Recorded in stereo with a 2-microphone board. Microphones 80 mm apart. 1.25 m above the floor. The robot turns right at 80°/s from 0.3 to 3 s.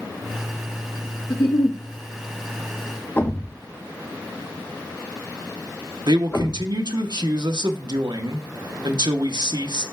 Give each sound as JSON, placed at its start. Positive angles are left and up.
{"t": 1.3, "sound": "a giggle", "azimuth_deg": 65, "distance_m": 1.0}
{"t": 3.2, "sound": "a thud", "side_deg": 25, "distance_m": 1.1}
{"t": 6.1, "sound": "a man speaking", "side_deg": -65, "distance_m": 1.0}